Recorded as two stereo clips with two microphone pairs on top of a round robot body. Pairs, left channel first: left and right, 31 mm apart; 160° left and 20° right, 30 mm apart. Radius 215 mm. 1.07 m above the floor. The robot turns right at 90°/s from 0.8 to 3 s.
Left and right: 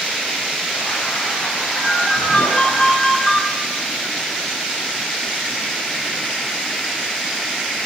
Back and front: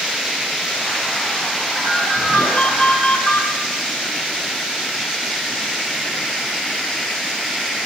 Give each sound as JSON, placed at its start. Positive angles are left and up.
{"t": 1.8, "sound": "a ringtone", "azimuth_deg": 60, "distance_m": 2.5}